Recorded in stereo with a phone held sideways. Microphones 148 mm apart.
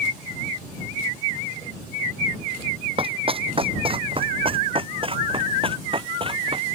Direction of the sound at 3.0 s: 40° right (ahead or behind).